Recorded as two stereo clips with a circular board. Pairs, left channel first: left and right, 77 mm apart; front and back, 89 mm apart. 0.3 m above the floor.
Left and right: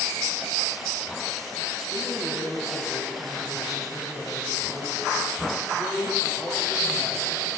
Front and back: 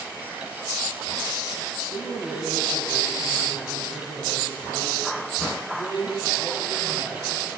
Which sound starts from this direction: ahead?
A man speaking, at 1.9 s.